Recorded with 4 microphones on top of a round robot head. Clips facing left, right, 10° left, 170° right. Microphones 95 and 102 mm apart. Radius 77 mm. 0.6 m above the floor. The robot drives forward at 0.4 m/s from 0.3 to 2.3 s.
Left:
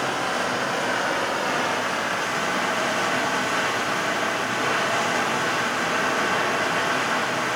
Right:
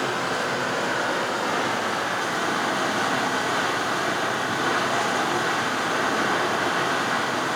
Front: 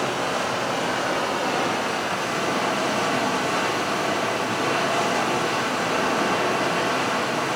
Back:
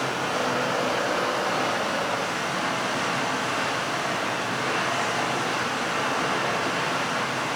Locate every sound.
0.0 s running water: 10° right, 2 m; by 7.6 s 15° right, 1.4 m